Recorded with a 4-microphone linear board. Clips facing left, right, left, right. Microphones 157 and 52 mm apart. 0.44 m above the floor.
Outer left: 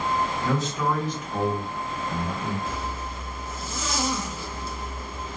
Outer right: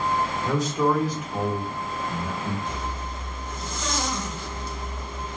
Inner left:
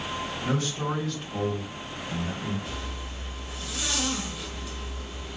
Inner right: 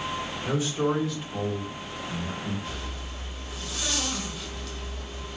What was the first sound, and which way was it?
A man speaking, 15° right (ahead or behind).